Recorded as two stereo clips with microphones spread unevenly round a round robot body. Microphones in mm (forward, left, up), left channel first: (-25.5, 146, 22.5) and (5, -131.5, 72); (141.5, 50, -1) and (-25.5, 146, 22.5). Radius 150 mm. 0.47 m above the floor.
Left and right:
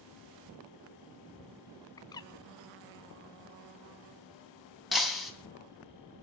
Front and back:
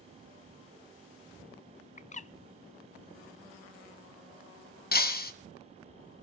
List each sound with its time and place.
2.0 s a bird: 25° left, 0.7 m
4.9 s breaking glass: 10° left, 2.5 m